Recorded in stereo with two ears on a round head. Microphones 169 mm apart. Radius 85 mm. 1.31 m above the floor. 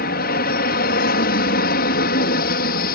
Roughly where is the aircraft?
Left.